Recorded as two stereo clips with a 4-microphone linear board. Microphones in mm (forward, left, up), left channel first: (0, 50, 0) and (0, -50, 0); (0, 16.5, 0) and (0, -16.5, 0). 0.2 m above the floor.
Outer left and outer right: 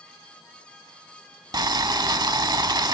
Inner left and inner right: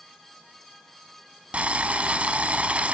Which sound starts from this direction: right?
Boiling, at 1.5 s.